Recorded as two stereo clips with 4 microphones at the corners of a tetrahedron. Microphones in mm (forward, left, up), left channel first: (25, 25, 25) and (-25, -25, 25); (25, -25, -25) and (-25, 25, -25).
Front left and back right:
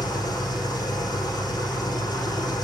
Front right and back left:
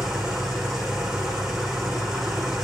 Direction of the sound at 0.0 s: 45° left.